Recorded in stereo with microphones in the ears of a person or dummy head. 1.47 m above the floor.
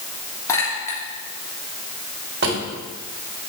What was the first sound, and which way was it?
A clink, 20° left (ahead or behind).